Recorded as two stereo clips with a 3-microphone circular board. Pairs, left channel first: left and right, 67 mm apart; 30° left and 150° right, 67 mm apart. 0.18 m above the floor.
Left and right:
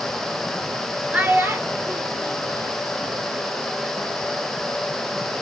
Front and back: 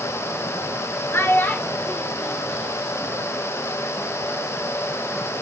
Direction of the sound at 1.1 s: 20° right.